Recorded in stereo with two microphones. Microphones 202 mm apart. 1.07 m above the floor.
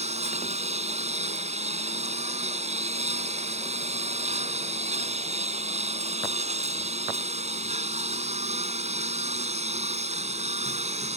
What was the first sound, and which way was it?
A lawn mower, 35° right (ahead or behind).